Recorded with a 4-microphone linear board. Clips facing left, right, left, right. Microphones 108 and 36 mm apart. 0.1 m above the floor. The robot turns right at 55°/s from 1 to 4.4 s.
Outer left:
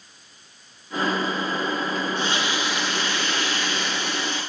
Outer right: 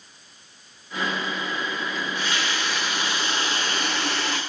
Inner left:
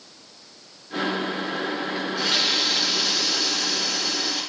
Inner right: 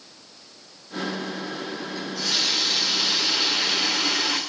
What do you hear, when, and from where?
1.9 s a running tap: 125° left, 7.5 m; by 4.4 s 100° right, 7.5 m